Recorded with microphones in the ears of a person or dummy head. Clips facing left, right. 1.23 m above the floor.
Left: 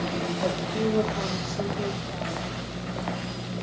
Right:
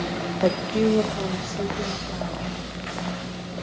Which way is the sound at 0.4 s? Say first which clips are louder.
Right 8 dB; 60° right (ahead or behind).